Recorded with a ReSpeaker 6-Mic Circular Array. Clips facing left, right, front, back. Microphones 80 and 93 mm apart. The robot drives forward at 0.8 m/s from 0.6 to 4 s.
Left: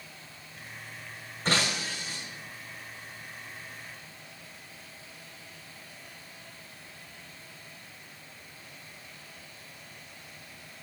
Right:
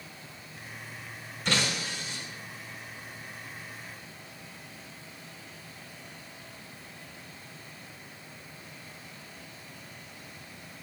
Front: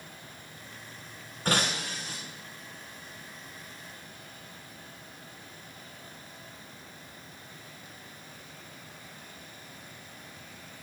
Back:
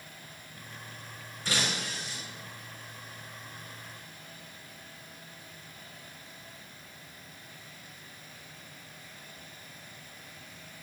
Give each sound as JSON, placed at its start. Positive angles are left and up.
{"t": 1.4, "sound": "breaking glass", "azimuth_deg": 40, "distance_m": 5.5}